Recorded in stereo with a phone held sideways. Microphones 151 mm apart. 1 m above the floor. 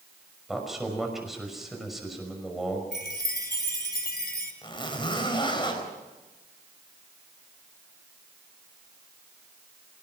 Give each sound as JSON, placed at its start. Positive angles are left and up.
{"t": 0.5, "sound": "a man speaking", "side_deg": 0, "distance_m": 6.0}
{"t": 2.9, "sound": "a chime", "side_deg": 80, "distance_m": 3.0}
{"t": 4.6, "sound": "a zipper", "side_deg": 30, "distance_m": 4.0}